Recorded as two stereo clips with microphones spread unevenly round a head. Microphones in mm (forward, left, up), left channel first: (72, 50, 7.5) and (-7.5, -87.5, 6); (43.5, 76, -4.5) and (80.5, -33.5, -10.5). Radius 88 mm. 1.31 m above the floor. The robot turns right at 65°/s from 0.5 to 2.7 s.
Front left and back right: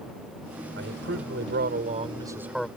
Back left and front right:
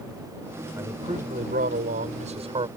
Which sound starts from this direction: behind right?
A man speaking, at 0.8 s.